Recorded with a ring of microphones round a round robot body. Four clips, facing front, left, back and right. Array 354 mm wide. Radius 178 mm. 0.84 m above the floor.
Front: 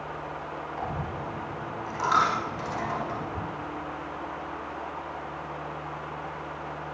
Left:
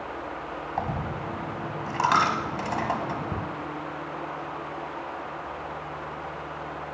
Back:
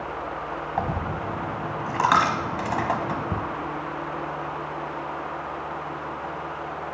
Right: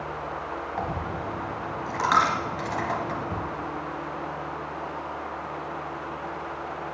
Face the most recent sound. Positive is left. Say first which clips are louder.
# left 2 dB, back 6 dB
turn(degrees=170)